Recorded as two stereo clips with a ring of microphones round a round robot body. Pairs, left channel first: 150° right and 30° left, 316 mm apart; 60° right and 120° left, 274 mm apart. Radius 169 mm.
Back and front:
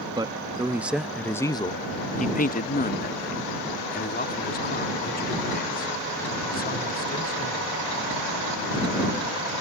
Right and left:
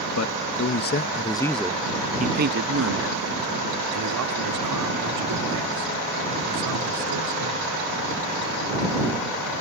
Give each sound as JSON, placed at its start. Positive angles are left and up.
{"t": 0.1, "sound": "a man speaking", "azimuth_deg": -45}